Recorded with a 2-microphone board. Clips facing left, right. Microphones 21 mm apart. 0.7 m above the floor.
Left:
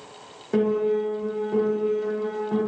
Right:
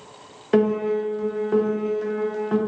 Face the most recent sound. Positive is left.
turn(degrees=-75)  # may be behind; listen again after turning